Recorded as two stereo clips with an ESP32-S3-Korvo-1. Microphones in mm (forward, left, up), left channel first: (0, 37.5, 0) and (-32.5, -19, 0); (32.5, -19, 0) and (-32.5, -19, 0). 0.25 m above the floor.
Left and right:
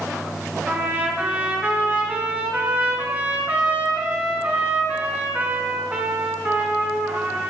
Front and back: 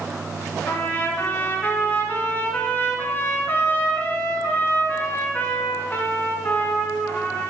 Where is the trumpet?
60° right, 2.5 m.